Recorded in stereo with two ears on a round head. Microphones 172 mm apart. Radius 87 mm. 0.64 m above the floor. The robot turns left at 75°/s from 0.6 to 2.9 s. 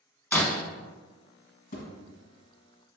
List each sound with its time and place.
0.3 s breaking glass: 10° left (ahead or behind), 0.6 m
1.7 s a thud: 45° left (ahead or behind), 1.3 m; by 1.9 s 60° left (ahead or behind), 1.3 m